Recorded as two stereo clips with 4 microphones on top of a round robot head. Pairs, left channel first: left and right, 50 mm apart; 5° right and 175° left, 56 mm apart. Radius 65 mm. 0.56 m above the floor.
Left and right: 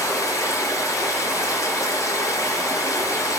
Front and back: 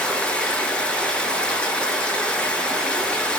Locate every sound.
0.0 s running water: 65° left, 7 m